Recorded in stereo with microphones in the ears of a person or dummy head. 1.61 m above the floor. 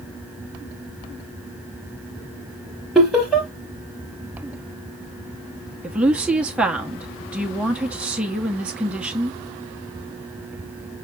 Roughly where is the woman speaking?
Centre.